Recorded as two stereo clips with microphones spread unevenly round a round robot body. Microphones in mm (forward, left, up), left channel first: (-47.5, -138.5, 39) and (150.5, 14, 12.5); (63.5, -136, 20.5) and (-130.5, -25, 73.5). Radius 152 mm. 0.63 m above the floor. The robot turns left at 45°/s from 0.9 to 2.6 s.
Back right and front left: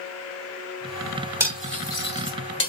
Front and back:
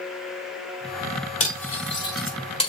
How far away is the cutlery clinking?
About 3.5 m.